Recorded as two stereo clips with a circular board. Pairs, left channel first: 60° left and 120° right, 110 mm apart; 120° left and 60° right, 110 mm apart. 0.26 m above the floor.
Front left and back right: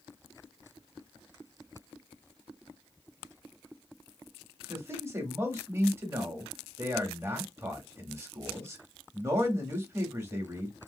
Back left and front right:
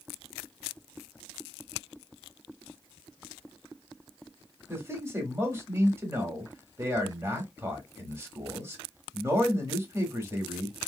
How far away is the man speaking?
About 1.0 m.